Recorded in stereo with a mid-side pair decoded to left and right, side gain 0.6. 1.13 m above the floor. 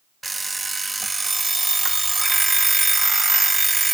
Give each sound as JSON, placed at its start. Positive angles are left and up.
{"t": 0.2, "sound": "an alarm clock", "azimuth_deg": -15, "distance_m": 0.5}